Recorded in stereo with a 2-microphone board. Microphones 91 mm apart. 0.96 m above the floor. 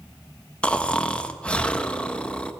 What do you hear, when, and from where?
0.6 s snoring: 15° left (ahead or behind), 1.3 m